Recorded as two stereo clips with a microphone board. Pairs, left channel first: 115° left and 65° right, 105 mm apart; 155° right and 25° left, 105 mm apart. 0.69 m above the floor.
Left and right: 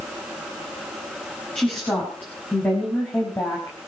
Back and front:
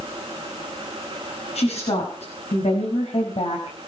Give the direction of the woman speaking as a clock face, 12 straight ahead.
6 o'clock.